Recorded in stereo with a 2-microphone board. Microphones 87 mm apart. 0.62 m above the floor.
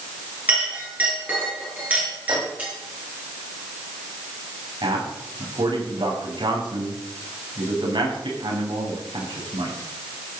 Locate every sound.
0.5 s a clink: 15° right (ahead or behind), 8 m
2.3 s a microwave: 65° right (ahead or behind), 4 m
4.8 s a man speaking: 65° right (ahead or behind), 5.5 m